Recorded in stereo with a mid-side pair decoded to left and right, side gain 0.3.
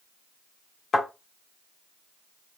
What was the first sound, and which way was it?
A thud, 70° left.